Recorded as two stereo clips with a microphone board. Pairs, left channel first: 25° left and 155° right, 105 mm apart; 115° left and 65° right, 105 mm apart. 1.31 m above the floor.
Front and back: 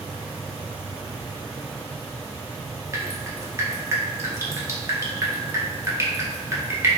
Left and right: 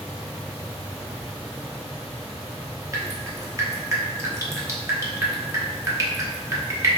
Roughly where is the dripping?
Behind right.